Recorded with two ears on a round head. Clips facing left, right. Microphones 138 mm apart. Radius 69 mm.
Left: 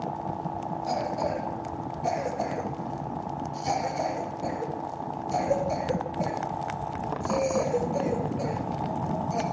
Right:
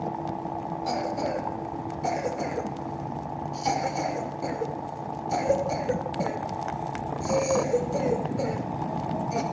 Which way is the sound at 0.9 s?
85° right.